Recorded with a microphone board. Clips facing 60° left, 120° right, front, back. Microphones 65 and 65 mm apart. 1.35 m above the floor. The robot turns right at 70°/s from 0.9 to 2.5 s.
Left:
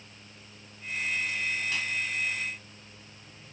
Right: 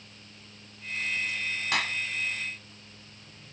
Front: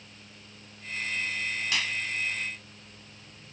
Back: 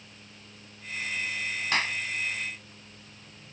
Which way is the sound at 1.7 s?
135° right.